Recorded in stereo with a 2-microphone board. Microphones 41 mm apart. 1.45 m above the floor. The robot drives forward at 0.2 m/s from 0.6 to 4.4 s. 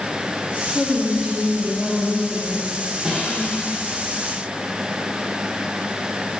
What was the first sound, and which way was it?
A woman speaking, 5° left (ahead or behind).